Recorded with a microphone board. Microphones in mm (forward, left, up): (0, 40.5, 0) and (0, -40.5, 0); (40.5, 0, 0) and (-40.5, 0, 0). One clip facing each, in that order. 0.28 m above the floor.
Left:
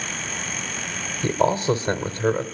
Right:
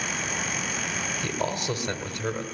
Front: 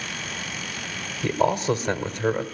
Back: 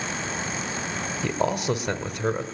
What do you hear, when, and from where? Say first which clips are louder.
1.2 s a man speaking: left 11 dB, front 4 dB; 90° left, 1.2 m